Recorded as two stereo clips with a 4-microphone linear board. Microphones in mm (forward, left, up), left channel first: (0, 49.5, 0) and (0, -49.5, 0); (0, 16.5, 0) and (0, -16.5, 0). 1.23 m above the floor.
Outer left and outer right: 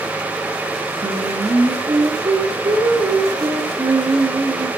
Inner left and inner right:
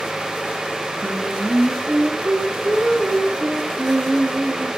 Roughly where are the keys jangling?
I don't hear keys jangling.